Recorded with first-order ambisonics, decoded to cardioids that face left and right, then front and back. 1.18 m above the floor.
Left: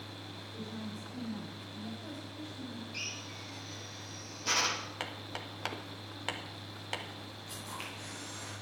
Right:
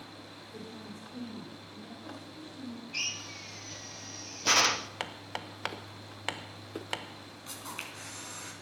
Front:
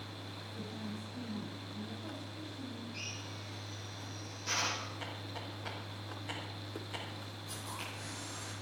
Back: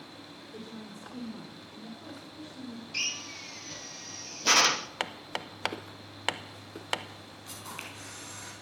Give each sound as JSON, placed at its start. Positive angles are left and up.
{"t": 0.5, "sound": "a woman speaking", "azimuth_deg": -150, "distance_m": 4.0}
{"t": 2.9, "sound": "a drill", "azimuth_deg": -150, "distance_m": 0.6}
{"t": 5.0, "sound": "hammering", "azimuth_deg": -165, "distance_m": 0.8}
{"t": 7.5, "sound": "a camera shutter", "azimuth_deg": -125, "distance_m": 4.0}